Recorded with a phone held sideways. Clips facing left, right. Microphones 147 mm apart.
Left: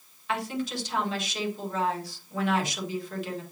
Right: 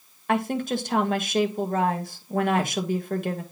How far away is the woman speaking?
About 1.4 m.